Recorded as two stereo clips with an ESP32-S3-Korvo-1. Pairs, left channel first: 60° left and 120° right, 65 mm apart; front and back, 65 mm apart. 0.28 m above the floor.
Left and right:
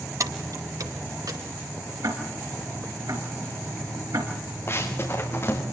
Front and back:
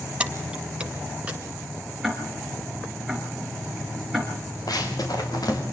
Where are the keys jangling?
110° right, 1.5 m.